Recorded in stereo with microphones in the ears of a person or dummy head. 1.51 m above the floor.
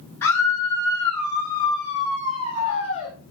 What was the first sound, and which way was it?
A scream, 10° left (ahead or behind).